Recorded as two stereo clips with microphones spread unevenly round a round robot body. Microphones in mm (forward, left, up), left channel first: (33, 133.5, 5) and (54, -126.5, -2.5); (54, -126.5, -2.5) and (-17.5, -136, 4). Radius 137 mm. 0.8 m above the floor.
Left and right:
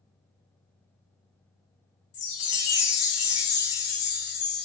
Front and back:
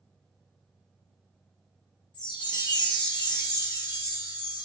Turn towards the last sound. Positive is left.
turn(degrees=60)